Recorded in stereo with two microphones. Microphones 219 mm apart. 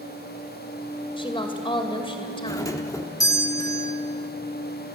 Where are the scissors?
I don't hear scissors.